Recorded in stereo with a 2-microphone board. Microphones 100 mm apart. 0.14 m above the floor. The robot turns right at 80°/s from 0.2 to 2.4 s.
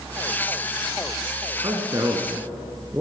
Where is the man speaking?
105° right, 1.5 m; by 3.0 s 40° right, 1.5 m.